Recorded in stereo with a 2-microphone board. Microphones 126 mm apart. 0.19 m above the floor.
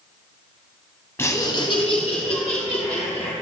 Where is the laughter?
20° left (ahead or behind), 1.0 m; by 3.3 s 60° left (ahead or behind), 3 m.